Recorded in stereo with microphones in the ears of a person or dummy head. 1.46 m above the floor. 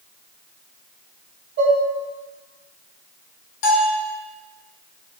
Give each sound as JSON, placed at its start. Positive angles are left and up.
{"t": 1.6, "sound": "dishes clattering", "side_deg": -55, "distance_m": 1.0}
{"t": 3.6, "sound": "a bell", "side_deg": 70, "distance_m": 0.8}